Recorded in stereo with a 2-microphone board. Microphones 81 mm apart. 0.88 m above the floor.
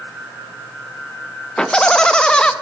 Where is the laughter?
10° left (ahead or behind), 0.6 m.